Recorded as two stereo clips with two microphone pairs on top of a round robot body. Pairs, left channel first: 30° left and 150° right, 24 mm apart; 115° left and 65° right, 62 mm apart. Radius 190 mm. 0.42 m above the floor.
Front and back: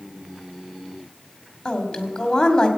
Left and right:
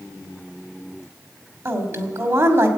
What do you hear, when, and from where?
1.6 s a woman speaking: 35° right, 3 m